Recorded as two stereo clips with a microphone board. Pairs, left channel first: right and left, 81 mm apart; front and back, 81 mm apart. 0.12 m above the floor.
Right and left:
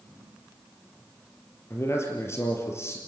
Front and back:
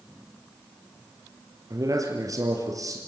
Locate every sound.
1.7 s a man speaking: 145° right, 3.5 m